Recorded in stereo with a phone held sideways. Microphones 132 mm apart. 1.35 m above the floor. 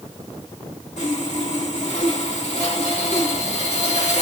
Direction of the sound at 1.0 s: 55° left (ahead or behind).